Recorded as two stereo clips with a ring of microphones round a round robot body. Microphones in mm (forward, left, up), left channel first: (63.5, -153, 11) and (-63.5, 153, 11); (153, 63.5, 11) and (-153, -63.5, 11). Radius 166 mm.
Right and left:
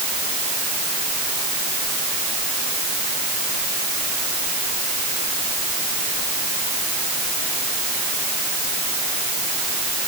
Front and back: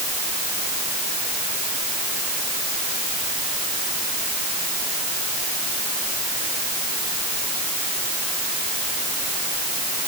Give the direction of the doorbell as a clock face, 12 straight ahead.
No doorbell in this recording.